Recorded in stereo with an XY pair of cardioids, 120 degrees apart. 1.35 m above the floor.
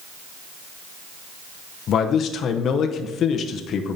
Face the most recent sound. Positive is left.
turn(degrees=55)